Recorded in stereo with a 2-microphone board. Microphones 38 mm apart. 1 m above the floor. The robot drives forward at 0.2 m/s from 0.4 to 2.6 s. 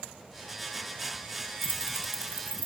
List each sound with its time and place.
1.6 s keys jangling: 65° right (ahead or behind), 0.5 m; by 2.7 s 55° right (ahead or behind), 0.6 m